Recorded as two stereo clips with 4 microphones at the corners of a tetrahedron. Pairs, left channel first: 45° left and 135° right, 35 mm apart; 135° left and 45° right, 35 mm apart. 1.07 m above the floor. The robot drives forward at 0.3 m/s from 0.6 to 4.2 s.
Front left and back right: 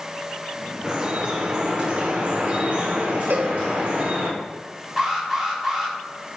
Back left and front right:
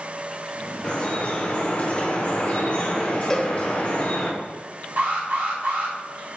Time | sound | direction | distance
0.8 | dripping | 170° left | 0.6 m
3.3 | a cowbell | 155° right | 0.5 m
5.0 | an alarm | 60° right | 1.5 m